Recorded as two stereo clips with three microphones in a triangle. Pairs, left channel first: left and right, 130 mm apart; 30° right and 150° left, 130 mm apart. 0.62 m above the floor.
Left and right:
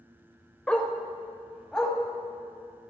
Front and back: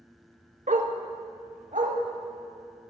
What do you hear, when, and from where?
0.7 s a dog barking: 170° left, 0.8 m; by 2.0 s 175° left, 1.6 m